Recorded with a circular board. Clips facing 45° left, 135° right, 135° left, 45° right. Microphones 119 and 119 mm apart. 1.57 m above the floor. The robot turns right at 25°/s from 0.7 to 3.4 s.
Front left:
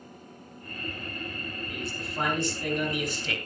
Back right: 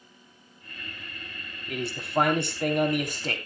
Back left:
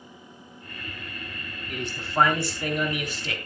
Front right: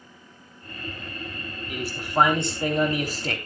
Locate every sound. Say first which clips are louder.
1.7 s a man speaking: back right 11 dB, front right 2 dB; 130° right, 3 m; by 3.4 s 90° right, 3 m